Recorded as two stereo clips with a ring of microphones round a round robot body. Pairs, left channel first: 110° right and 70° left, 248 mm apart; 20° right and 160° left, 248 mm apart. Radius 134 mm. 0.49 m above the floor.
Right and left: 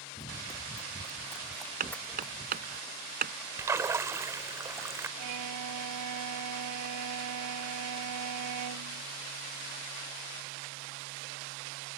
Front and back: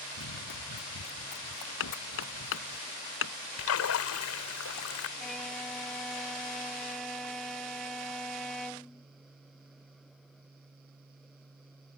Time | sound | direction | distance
0.2 | running footsteps | 35° right | ?
1.8 | hammering | 10° left | ?
3.6 | a splash | 10° right | ?
5.2 | a violin | 65° left | ?